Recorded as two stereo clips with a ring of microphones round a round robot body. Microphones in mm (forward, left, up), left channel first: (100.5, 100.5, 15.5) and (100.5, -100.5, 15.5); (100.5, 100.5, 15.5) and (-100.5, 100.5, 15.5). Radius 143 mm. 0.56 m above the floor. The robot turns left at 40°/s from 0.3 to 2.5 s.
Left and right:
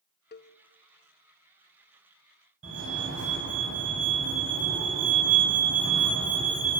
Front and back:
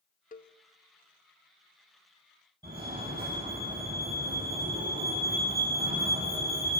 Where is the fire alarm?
105° right, 6.5 m.